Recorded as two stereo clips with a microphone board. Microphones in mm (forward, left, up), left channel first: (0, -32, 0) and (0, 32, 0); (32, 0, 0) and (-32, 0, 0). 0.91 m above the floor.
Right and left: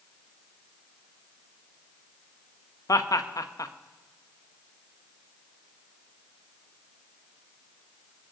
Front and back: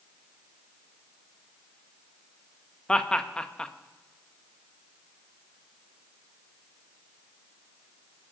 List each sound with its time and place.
2.9 s laughter: 75° right, 0.7 m